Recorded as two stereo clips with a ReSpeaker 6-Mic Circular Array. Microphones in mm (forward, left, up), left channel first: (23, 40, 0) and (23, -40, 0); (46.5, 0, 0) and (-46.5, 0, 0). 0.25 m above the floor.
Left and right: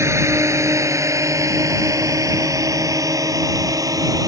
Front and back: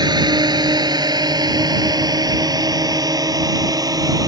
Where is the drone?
145° right; by 4.3 s 130° right.